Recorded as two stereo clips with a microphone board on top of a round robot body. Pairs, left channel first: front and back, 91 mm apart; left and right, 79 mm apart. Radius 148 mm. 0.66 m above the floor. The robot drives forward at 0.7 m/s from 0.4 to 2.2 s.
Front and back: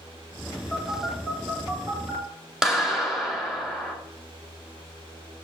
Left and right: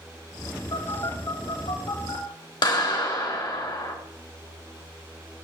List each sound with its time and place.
0.7 s a phone buzzing: 90° left, 4 m; by 2.2 s 105° left, 4 m
2.6 s a clap: 95° left, 2.5 m